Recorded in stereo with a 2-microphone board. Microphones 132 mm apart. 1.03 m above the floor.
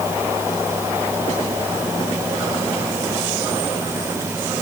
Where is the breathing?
No breathing in this recording.